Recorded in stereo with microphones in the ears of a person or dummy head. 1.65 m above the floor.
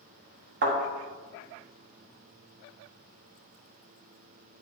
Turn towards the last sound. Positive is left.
turn(degrees=-40)  # may be behind; listen again after turning